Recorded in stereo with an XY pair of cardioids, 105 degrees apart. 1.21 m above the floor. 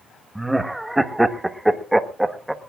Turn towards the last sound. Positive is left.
turn(degrees=-10)